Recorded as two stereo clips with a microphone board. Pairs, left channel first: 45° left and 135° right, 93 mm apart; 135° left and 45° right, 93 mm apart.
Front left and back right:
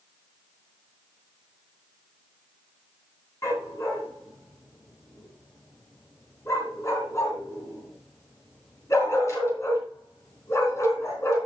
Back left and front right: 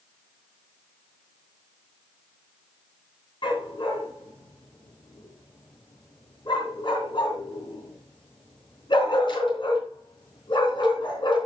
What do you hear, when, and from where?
3.4 s a dog barking: 100° left, 3.5 m